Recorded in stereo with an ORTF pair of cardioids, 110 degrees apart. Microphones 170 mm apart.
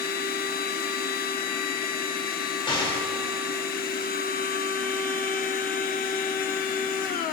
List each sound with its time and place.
0.0 s a machine running: 60° left, 1.0 m
2.7 s an explosion: 30° left, 2 m